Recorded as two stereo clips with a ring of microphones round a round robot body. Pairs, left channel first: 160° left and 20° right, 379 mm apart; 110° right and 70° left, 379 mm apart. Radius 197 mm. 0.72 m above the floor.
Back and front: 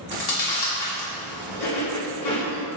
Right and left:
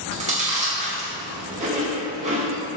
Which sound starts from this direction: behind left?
Chewing, at 0.1 s.